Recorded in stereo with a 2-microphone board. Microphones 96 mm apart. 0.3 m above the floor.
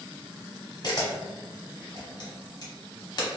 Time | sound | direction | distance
0.8 | a camera shutter | 45° left (ahead or behind) | 1.0 m